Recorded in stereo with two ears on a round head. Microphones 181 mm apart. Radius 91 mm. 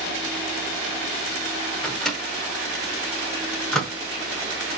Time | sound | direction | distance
1.8 | a microwave | 5° left (ahead or behind) | 0.9 m